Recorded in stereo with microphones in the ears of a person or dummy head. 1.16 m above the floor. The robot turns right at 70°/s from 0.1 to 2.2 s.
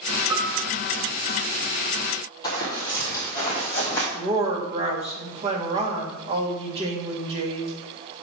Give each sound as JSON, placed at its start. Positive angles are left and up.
{"t": 0.3, "sound": "a piano", "side_deg": -25, "distance_m": 1.0}
{"t": 2.4, "sound": "running footsteps", "side_deg": 20, "distance_m": 2.5}
{"t": 4.1, "sound": "a woman speaking", "side_deg": -30, "distance_m": 1.5}